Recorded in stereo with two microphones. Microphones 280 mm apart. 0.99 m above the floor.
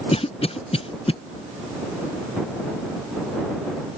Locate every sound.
0.1 s a cough: 20° left (ahead or behind)